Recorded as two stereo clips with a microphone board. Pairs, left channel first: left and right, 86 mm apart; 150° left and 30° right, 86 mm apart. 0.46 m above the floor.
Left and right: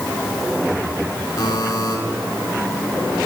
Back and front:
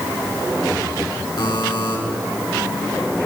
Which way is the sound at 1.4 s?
130° left.